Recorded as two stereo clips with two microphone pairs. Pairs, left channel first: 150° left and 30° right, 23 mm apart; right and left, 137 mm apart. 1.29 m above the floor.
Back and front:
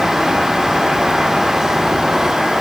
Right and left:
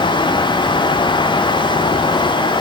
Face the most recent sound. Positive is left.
No sound to turn to.